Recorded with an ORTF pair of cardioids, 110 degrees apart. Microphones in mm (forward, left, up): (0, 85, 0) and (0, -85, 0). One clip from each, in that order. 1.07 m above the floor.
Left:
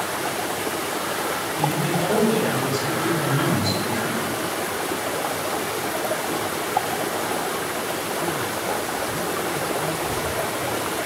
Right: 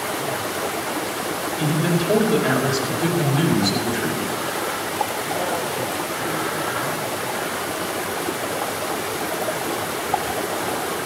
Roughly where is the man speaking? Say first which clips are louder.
Even; ahead right.